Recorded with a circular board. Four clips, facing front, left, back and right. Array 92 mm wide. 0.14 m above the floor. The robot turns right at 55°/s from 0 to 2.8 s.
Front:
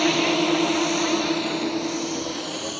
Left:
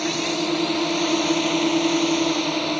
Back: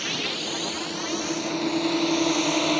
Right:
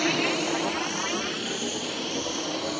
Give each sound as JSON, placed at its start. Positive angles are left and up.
{"t": 0.0, "sound": "a drone", "azimuth_deg": 0}